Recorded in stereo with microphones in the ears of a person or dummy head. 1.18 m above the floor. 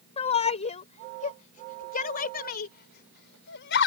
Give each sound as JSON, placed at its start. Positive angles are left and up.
{"t": 0.2, "sound": "a shout", "side_deg": 35}